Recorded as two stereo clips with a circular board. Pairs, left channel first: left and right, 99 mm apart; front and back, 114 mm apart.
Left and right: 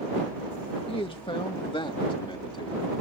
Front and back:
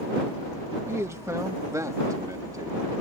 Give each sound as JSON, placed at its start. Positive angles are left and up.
{"t": 0.9, "sound": "a man speaking", "azimuth_deg": 115}